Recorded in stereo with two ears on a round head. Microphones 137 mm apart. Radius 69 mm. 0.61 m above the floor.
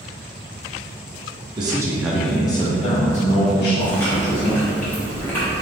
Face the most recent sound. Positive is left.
turn(degrees=10)  # may be behind; listen again after turning